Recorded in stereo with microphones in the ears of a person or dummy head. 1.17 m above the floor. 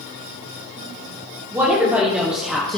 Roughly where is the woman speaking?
Centre.